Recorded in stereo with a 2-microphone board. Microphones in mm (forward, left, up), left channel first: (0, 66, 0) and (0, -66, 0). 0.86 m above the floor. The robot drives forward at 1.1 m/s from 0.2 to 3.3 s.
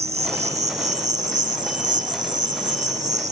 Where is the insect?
55° right (ahead or behind); by 3.3 s 65° right (ahead or behind).